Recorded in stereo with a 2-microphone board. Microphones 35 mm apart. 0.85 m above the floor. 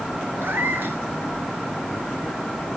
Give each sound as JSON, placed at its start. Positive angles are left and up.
{"t": 0.4, "sound": "a cat meowing", "side_deg": -75, "distance_m": 2.0}